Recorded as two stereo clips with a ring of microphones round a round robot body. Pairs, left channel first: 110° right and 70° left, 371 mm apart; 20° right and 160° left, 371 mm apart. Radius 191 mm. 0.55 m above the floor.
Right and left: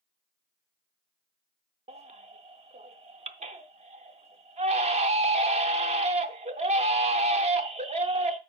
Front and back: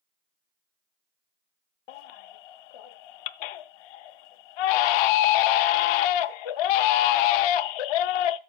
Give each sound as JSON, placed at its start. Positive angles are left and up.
{"t": 1.9, "sound": "a baby crying", "azimuth_deg": -5, "distance_m": 0.6}